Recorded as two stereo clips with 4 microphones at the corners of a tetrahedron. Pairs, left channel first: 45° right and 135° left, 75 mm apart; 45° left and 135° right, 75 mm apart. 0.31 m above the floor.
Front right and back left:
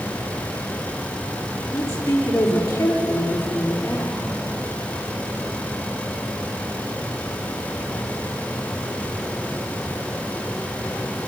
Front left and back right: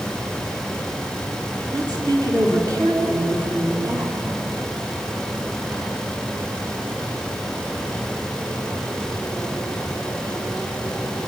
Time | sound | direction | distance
1.7 | a woman speaking | 100° right | 4.5 m